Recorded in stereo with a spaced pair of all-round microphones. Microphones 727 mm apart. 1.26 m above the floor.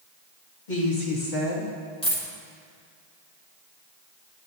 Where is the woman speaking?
80° left, 2.5 m; by 1.7 s 70° left (ahead or behind), 3 m.